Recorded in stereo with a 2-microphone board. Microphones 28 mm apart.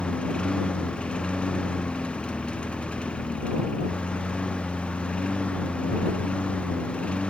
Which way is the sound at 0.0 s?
40° left (ahead or behind).